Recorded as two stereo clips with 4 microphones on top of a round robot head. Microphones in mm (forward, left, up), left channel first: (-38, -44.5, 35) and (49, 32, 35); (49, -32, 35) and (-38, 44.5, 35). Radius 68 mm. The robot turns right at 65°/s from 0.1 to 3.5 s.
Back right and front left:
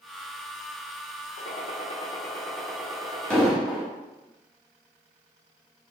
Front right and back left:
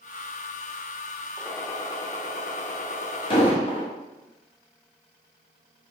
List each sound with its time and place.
1.4 s a gunshot: 130° right, 0.9 m; by 3.6 s 10° left, 0.9 m
3.3 s an explosion: 60° right, 1.5 m; by 3.9 s 50° right, 1.5 m